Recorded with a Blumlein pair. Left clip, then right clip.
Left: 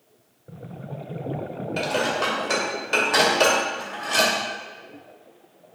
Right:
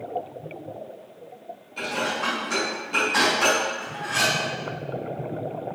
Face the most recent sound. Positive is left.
turn(degrees=35)